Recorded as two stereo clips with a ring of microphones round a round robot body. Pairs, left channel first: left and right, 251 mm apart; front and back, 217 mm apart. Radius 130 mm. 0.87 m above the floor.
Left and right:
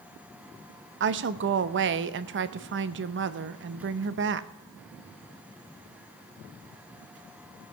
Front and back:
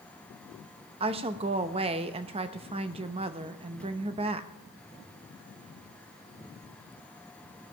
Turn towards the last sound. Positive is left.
turn(degrees=-120)